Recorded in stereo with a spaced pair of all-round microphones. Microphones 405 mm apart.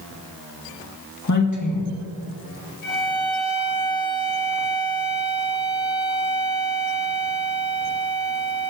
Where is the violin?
45° left (ahead or behind), 2.5 m.